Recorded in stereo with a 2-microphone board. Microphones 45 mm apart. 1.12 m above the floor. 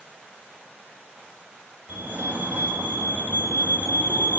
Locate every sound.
1.9 s a fire alarm: 55° right (ahead or behind), 3 m